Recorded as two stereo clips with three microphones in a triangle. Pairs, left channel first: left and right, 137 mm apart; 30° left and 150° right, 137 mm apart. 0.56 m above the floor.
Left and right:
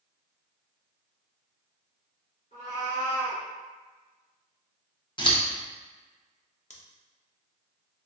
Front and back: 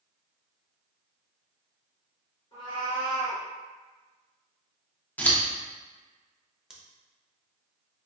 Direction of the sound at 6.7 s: 125° left.